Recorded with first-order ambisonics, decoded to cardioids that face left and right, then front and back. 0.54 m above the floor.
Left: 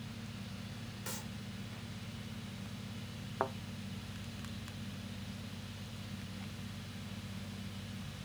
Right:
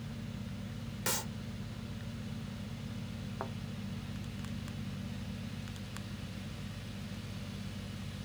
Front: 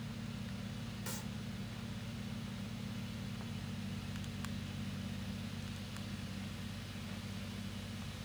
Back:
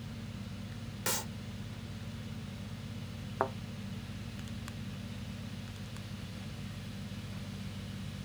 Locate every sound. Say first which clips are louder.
1.1 s a clap: right 10 dB, back 12 dB; 140° right
3.4 s a thud: left 7 dB, back 16 dB; 155° left